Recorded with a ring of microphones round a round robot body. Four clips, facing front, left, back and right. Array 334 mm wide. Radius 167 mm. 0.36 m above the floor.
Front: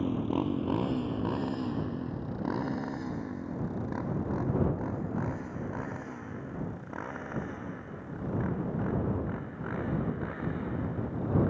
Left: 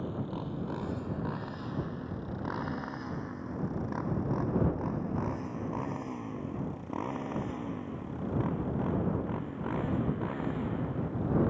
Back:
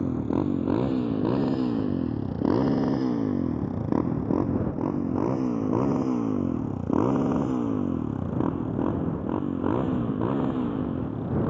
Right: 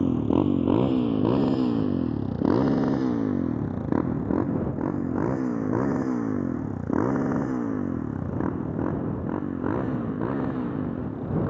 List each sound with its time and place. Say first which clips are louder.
0.0 s a motorcycle: right 15 dB, back 4 dB; 105° right; by 11.5 s 145° right